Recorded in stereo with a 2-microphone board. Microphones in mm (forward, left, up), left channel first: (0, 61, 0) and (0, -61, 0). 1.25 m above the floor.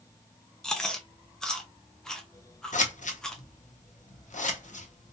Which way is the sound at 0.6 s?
5° left (ahead or behind).